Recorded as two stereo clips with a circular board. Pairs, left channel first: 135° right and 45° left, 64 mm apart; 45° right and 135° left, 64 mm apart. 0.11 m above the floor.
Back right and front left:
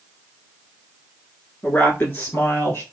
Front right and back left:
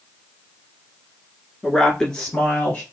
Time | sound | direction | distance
1.6 | a woman speaking | 120° right | 1.2 m